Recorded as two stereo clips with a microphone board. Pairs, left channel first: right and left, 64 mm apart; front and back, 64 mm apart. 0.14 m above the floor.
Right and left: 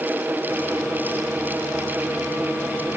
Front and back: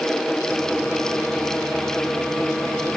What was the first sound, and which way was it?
Only background noise.